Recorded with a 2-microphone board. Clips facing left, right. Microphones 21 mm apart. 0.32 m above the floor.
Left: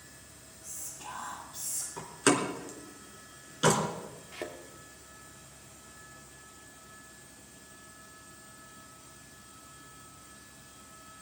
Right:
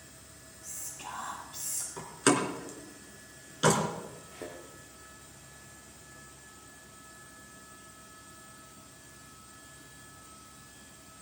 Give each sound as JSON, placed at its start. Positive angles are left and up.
{"t": 0.6, "sound": "whispering", "side_deg": -65, "distance_m": 7.0}
{"t": 2.0, "sound": "a door slam", "side_deg": -10, "distance_m": 3.0}
{"t": 4.3, "sound": "a thud", "side_deg": 75, "distance_m": 2.5}